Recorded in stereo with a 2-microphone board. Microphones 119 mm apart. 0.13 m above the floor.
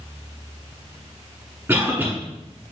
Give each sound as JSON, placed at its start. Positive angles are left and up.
{"t": 1.7, "sound": "a cough", "side_deg": -20, "distance_m": 1.1}